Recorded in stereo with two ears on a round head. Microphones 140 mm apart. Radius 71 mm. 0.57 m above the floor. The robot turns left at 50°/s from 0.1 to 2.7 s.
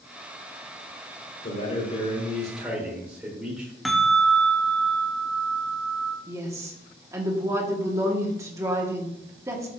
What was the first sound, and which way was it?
A man speaking, 55° left.